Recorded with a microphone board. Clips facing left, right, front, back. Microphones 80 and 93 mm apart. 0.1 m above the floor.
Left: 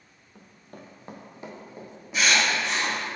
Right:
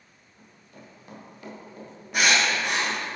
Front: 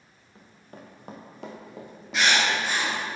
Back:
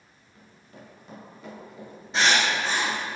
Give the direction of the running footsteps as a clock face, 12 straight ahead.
10 o'clock.